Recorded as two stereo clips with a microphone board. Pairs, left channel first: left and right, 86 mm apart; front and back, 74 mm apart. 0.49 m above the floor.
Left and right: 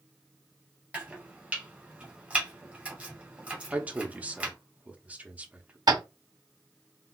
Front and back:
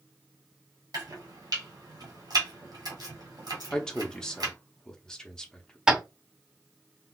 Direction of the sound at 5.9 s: 105° right.